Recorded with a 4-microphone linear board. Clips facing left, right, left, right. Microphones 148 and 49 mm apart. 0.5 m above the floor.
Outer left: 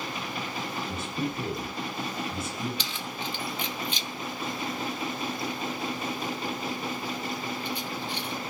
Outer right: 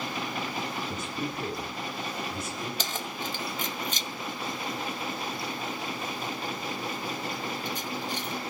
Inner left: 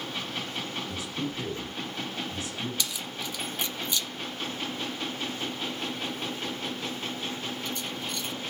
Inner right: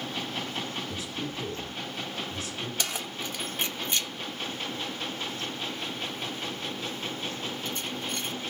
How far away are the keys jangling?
About 0.7 m.